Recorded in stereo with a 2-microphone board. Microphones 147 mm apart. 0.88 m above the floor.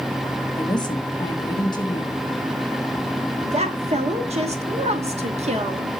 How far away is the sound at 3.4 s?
About 1.2 m.